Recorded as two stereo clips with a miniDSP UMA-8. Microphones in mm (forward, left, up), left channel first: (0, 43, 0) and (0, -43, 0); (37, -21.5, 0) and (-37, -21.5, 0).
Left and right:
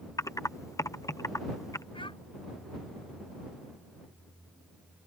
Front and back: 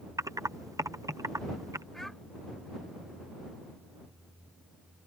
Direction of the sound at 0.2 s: 140° left.